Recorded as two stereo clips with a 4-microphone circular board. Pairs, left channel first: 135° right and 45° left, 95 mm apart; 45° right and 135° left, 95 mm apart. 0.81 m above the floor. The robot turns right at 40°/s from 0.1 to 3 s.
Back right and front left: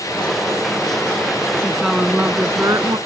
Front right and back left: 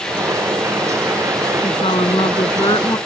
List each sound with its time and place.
1.6 s a woman speaking: 55° right; by 3.0 s straight ahead